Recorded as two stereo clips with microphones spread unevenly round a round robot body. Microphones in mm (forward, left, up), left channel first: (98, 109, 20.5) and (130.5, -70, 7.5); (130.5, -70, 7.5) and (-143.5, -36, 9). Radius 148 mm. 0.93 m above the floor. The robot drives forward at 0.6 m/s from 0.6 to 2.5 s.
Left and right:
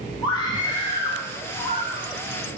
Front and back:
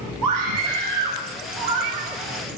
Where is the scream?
175° left, 10 m.